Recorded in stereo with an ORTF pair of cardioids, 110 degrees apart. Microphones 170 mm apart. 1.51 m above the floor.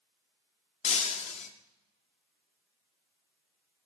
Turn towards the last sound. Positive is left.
turn(degrees=45)